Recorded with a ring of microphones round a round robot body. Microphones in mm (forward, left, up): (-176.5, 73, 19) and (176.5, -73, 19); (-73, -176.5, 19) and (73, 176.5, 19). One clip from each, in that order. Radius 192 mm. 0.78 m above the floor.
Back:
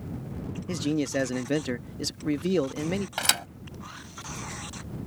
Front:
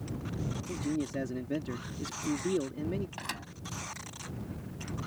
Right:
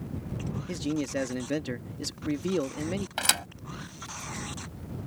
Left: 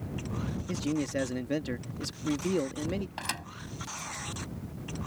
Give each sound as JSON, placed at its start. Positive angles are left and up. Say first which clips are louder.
{"t": 0.7, "sound": "a man speaking", "louder": "back 8 dB, right 1 dB", "azimuth_deg": 165}
{"t": 3.2, "sound": "a thud", "louder": "back 13 dB, right 9 dB", "azimuth_deg": -165}